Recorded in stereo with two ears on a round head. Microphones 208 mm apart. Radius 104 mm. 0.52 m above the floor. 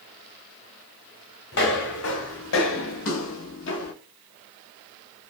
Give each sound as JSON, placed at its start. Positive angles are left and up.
{"t": 1.5, "sound": "footsteps", "side_deg": 50, "distance_m": 1.4}